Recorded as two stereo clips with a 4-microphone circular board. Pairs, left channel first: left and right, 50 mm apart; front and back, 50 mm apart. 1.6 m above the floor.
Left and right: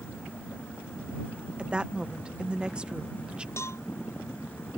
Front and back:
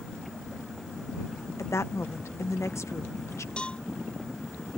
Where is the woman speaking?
20° right.